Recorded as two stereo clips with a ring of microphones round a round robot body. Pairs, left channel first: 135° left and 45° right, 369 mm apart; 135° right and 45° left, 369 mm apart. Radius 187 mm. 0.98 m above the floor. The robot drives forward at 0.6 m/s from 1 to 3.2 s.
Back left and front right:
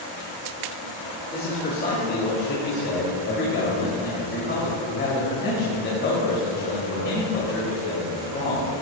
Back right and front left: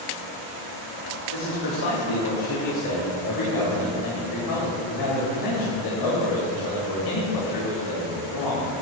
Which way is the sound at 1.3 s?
160° right.